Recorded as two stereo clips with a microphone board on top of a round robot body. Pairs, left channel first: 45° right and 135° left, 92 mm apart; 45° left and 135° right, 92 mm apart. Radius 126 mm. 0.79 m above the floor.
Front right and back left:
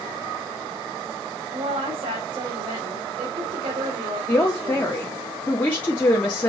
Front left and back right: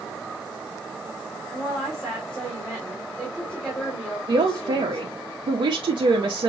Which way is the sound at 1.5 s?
130° left.